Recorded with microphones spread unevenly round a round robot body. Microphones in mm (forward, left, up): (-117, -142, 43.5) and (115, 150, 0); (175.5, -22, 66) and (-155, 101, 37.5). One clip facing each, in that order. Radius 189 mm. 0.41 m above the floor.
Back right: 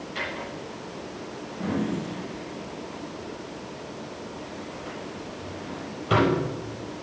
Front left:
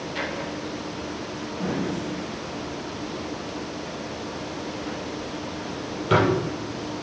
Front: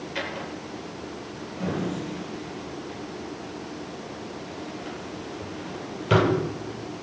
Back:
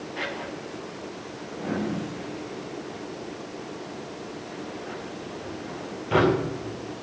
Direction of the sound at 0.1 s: 20° right.